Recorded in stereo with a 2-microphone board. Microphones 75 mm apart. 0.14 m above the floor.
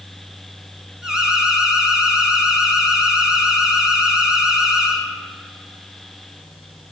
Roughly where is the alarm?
Centre.